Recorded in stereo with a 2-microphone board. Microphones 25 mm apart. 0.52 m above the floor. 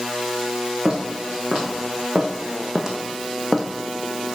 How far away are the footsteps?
About 2.5 m.